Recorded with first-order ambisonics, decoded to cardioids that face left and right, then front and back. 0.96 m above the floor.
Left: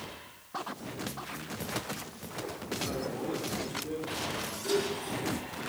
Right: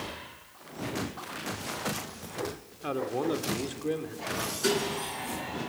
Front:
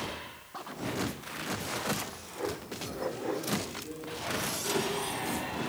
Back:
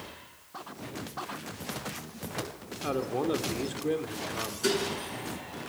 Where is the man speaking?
145° right, 2.5 m.